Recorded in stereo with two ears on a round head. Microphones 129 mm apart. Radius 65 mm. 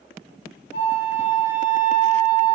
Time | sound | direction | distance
0.7 | a flute | 75° left (ahead or behind) | 2 m